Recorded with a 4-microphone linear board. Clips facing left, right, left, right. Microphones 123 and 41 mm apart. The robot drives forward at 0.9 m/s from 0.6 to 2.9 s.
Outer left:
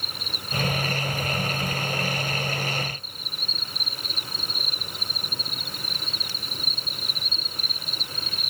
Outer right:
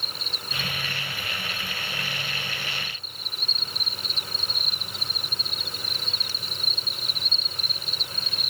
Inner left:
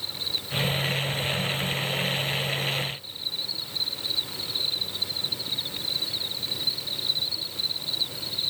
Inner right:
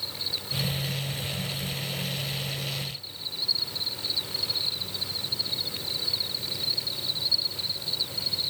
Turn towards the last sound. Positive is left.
turn(degrees=45)  # may be behind; listen again after turning